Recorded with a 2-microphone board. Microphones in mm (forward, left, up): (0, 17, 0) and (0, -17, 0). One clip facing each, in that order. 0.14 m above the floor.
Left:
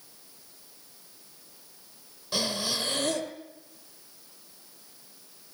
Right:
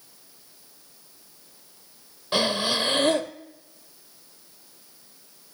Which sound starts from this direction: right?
Breathing, at 2.3 s.